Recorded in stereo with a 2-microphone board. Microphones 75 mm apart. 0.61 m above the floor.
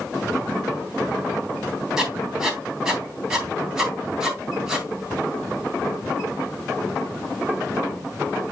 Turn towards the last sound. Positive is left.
turn(degrees=-5)  # may be behind; listen again after turning